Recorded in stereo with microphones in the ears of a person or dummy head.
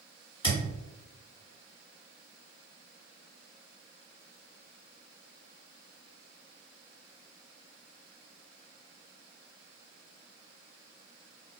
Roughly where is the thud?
Left.